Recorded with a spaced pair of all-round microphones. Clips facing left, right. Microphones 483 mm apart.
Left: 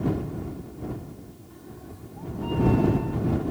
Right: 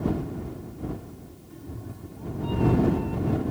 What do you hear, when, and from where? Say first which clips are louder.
1.5 s a cat meowing: right 5 dB; 50° right (ahead or behind); by 3.4 s 60° right (ahead or behind)